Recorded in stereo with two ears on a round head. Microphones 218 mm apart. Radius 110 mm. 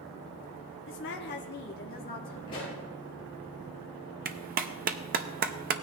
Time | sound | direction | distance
0.9 | a woman speaking | 50° left (ahead or behind) | 0.8 m
2.5 | a pop | 20° left (ahead or behind) | 5.5 m
4.2 | a clap | 35° right (ahead or behind) | 0.6 m